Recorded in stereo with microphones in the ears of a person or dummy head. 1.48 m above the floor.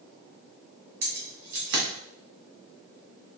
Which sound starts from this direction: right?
Keys jangling, at 1.0 s.